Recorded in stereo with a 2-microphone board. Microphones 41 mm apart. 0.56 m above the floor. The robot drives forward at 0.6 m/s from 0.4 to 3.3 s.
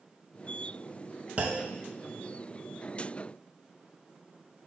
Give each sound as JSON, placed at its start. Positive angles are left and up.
{"t": 1.4, "sound": "a clunk", "side_deg": -35, "distance_m": 1.0}